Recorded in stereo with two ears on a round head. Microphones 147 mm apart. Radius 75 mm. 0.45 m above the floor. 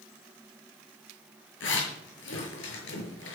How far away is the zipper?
About 6.5 m.